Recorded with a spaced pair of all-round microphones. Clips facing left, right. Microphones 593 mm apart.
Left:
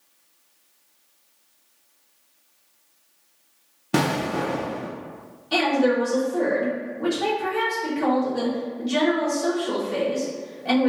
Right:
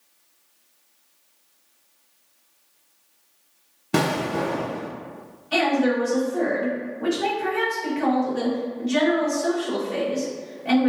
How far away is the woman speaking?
About 1.7 m.